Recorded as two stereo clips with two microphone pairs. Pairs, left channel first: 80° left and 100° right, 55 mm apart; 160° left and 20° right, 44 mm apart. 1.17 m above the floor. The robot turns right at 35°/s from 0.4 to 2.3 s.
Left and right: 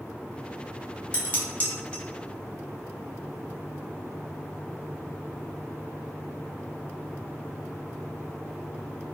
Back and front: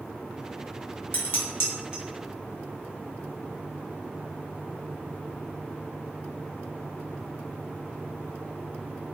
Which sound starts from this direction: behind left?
Dishes clattering, at 1.1 s.